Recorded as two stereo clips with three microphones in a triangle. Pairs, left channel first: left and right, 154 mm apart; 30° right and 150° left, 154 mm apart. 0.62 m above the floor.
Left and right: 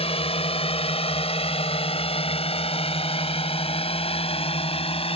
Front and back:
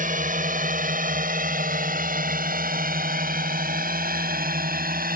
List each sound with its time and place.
0.0 s a drone: 135° left; by 5.2 s 140° left